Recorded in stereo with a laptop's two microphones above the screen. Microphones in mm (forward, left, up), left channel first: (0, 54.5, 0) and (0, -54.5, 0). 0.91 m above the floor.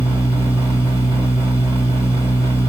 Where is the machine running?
50° right (ahead or behind), 2.0 m.